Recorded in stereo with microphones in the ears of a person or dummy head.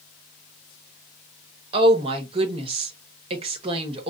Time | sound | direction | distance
1.7 | a woman speaking | 30° right (ahead or behind) | 1.1 m